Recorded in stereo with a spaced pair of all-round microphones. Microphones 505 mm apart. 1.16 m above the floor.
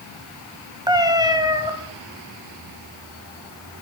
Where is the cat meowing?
10° right (ahead or behind), 1.4 m.